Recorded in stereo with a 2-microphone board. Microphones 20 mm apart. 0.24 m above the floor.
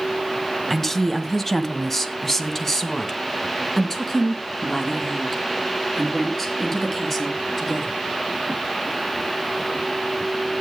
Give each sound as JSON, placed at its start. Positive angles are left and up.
{"t": 0.7, "sound": "a woman speaking", "side_deg": 10, "distance_m": 1.0}